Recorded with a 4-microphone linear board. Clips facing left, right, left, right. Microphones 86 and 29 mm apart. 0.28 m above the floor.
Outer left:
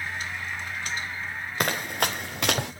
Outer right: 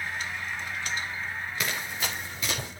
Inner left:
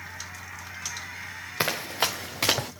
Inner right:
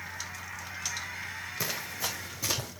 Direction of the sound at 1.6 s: 50° left (ahead or behind).